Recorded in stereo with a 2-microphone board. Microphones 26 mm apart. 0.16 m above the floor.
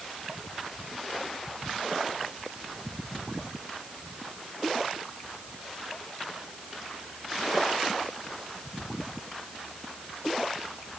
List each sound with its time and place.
Only background noise.